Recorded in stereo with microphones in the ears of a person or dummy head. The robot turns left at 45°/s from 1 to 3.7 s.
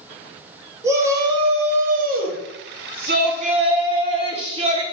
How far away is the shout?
About 0.6 m.